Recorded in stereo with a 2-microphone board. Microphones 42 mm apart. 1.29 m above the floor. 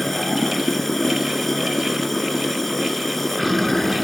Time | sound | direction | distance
0.0 | running water | 5° left (ahead or behind) | ?